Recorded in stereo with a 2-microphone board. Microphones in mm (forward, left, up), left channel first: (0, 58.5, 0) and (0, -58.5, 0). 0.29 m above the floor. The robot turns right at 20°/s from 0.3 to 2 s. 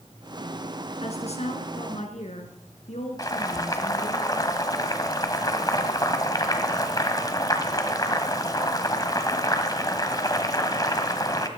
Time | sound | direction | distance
1.0 | a woman speaking | 65° left (ahead or behind) | 3 m
3.2 | boiling | 35° left (ahead or behind) | 1.6 m